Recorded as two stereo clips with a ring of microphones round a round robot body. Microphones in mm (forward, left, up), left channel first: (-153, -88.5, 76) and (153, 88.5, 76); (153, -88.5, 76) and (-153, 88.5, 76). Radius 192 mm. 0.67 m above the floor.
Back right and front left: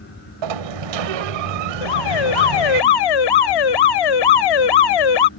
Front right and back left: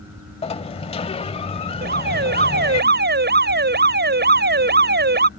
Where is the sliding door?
45° left.